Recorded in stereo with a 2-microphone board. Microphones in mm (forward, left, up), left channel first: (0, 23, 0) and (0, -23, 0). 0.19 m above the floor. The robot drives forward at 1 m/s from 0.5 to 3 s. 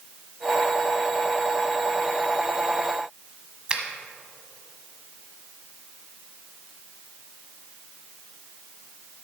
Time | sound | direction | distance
3.7 | a finger snap | 20° right (ahead or behind) | 1.0 m